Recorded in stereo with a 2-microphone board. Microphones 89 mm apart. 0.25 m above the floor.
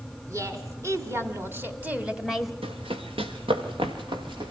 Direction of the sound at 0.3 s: 35° right (ahead or behind).